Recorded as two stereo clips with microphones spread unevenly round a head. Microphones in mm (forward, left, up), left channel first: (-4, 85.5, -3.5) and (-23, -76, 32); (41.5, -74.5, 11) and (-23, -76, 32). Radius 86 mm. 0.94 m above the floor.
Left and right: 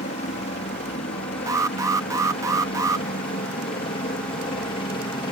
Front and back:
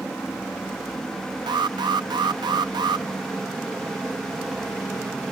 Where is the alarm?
170° right.